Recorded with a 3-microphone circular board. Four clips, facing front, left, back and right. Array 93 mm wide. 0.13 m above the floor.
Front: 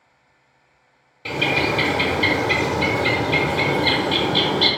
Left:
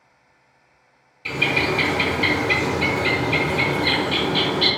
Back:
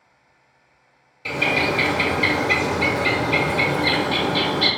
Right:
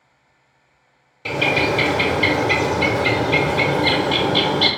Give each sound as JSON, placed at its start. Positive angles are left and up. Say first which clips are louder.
{"t": 1.2, "sound": "a bird", "louder": "right 3 dB, even", "azimuth_deg": -65, "distance_m": 0.9}